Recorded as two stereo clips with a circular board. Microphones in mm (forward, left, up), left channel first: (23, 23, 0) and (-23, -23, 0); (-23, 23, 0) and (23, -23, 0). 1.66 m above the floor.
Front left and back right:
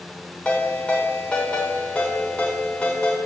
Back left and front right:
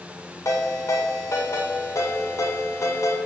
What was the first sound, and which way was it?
A ringtone, 115° left.